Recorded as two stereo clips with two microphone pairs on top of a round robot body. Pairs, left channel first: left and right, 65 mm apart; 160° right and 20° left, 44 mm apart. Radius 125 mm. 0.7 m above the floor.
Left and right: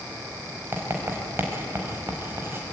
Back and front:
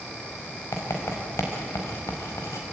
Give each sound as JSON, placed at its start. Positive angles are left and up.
{"t": 0.7, "sound": "writing", "azimuth_deg": -145, "distance_m": 4.5}